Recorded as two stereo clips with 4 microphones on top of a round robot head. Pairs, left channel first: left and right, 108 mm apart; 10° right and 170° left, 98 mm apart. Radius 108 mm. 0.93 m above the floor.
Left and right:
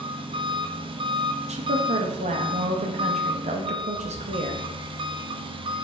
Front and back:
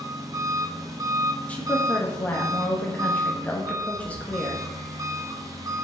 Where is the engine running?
130° right, 1.2 m.